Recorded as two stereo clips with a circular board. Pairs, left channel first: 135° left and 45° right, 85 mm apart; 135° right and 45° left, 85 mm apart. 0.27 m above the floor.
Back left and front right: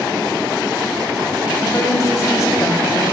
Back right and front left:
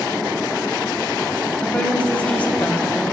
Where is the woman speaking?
160° left, 1.3 m.